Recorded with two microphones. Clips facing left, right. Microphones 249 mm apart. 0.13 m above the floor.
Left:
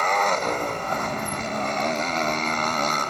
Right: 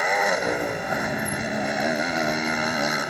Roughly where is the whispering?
No whispering in this recording.